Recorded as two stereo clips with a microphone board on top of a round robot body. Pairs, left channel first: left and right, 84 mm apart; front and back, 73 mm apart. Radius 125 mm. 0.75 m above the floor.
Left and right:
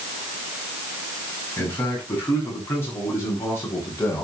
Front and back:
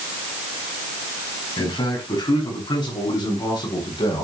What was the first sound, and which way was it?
A man speaking, 25° left.